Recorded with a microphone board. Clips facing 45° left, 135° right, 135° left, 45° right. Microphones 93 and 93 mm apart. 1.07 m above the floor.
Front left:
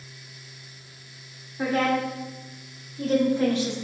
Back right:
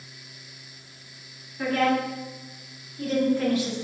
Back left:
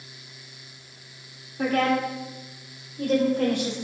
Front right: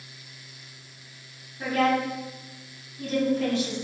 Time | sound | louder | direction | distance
1.6 | a woman speaking | even, back left 1 dB | 110° left | 4 m